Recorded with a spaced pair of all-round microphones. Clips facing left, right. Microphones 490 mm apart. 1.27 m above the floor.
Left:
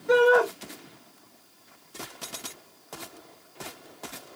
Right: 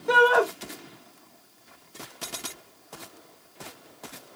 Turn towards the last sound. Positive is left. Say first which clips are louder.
# left 3 dB
turn(degrees=-85)